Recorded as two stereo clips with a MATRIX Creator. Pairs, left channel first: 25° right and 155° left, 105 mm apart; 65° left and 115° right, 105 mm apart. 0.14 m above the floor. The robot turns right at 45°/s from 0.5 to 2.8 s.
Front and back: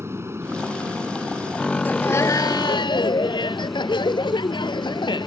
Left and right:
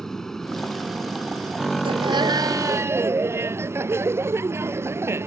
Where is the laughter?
95° right; by 5.3 s 50° right.